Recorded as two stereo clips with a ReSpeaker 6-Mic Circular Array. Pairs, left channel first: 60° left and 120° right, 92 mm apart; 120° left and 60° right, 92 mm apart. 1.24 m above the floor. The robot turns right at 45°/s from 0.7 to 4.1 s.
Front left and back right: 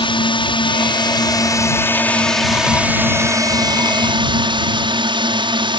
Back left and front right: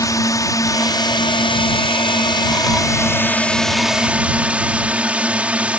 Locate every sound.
0.0 s a drone: 70° left; by 5.8 s 135° right